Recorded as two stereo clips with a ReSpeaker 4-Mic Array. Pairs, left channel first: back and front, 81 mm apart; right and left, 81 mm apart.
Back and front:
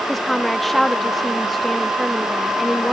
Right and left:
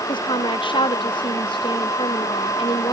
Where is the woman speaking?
95° right; by 2.9 s 90° right.